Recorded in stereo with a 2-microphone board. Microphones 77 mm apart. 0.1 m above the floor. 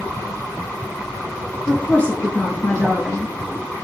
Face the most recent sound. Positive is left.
turn(degrees=15)  # may be behind; listen again after turning